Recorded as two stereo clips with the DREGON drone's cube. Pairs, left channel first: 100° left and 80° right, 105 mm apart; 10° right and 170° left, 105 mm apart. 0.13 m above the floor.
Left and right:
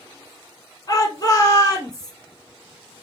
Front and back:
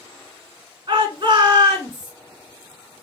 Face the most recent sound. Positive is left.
turn(degrees=140)